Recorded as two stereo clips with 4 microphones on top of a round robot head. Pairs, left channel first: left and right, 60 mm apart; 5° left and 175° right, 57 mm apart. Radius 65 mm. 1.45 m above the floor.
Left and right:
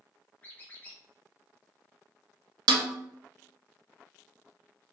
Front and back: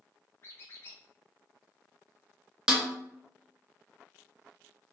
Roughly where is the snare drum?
Right.